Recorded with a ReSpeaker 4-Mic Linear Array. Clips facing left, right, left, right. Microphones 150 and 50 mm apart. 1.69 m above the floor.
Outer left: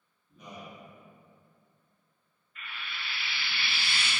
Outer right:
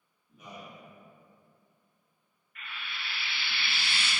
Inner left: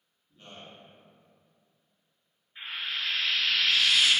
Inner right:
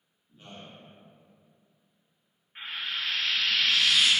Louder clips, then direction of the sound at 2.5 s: Even, even; 60° right (ahead or behind).